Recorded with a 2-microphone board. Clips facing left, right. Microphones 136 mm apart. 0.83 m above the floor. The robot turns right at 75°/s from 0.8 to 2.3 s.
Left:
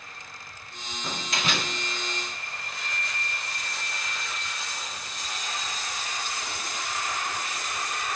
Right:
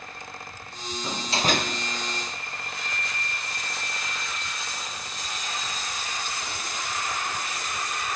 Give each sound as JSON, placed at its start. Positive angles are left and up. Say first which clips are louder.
{"t": 1.0, "sound": "a door slam", "louder": "right 5 dB", "azimuth_deg": -170, "distance_m": 1.1}